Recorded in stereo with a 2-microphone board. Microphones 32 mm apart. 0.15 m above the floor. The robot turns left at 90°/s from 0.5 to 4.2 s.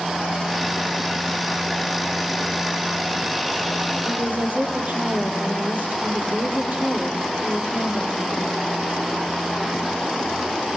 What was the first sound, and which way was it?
A woman speaking, 60° right (ahead or behind).